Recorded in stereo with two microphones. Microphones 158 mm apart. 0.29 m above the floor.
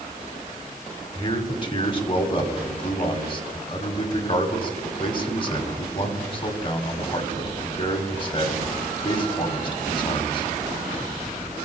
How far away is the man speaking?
About 1.6 m.